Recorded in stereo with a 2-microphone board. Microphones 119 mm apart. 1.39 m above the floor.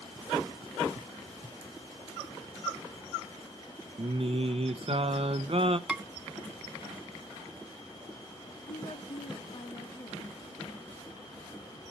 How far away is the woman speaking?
About 1.1 m.